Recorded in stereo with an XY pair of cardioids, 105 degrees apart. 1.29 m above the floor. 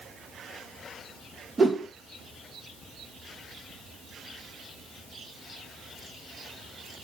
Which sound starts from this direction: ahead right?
A whoosh, at 1.6 s.